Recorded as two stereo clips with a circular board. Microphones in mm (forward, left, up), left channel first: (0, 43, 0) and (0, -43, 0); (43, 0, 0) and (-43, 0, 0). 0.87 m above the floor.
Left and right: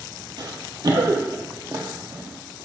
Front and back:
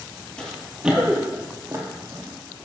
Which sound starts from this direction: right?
Running footsteps, at 0.4 s.